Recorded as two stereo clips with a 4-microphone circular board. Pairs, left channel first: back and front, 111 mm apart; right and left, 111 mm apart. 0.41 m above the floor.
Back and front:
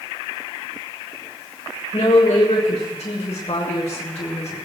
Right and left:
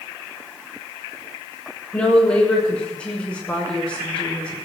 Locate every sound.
1.9 s a woman speaking: 170° right, 5.5 m